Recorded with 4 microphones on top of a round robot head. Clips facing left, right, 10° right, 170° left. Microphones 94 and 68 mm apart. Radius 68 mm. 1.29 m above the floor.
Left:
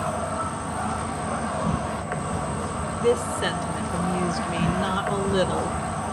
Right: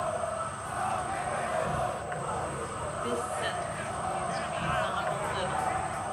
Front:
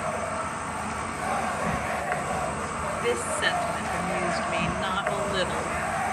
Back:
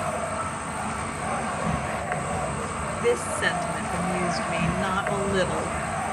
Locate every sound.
0.0 s an insect: 75° left, 1.0 m
3.0 s a woman speaking: 90° left, 1.3 m